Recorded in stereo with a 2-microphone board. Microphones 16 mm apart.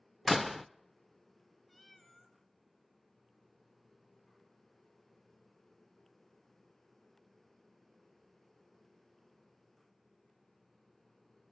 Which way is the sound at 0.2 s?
5° right (ahead or behind).